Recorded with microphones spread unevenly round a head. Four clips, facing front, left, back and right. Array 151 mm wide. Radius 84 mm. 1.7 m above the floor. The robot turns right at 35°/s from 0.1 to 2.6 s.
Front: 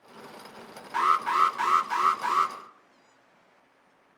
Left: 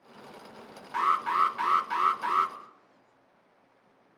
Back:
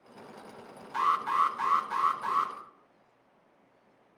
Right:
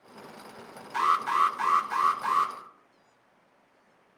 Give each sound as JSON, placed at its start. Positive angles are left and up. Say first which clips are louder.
{"t": 0.9, "sound": "an alarm", "louder": "right 1 dB, front 3 dB", "azimuth_deg": 20, "distance_m": 2.0}